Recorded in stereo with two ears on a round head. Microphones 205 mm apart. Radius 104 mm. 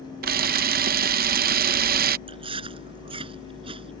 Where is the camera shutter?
40° right (ahead or behind).